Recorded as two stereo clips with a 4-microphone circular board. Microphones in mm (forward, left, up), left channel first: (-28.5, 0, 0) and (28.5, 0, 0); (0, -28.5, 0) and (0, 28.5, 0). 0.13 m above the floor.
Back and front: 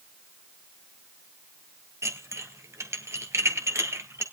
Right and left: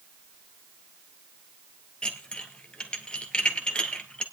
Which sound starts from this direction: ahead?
Dishes clattering, at 2.0 s.